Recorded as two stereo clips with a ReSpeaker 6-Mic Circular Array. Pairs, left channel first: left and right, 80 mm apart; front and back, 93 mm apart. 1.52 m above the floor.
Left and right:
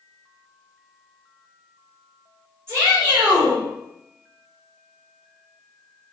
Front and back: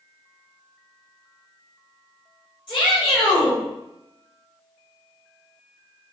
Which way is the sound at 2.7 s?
30° right.